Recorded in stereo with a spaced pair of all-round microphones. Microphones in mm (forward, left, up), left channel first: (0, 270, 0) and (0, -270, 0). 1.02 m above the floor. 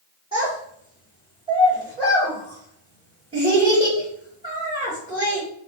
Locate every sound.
0.3 s a child speaking: 10° right (ahead or behind), 1.5 m